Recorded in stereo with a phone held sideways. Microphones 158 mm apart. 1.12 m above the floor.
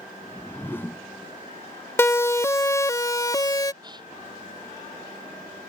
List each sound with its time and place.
0.2 s a whoosh: 15° left (ahead or behind)
2.0 s a siren: 15° left (ahead or behind); by 3.7 s 25° left (ahead or behind)
3.8 s a gasp: 30° right (ahead or behind)